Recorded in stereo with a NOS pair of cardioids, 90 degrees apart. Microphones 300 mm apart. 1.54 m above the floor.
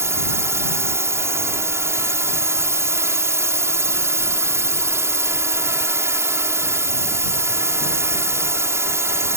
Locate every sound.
0.0 s a drone: 10° right